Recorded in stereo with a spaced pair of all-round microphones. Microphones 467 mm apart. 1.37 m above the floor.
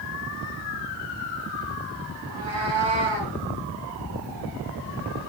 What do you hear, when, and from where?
2.2 s a cat meowing: 80° left, 8 m